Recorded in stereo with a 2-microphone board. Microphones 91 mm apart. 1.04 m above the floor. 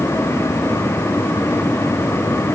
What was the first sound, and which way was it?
Only background noise.